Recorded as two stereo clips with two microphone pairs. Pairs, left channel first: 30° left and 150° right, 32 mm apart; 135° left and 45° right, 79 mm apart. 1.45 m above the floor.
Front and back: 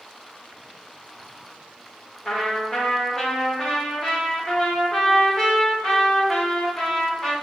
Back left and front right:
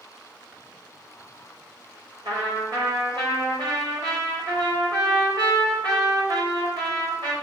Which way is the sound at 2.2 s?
45° right.